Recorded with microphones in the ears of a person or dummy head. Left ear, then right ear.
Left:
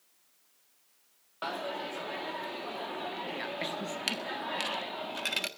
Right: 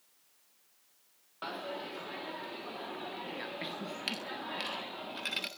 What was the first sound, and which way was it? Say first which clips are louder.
A dropped coin: left 4 dB; 15° left (ahead or behind).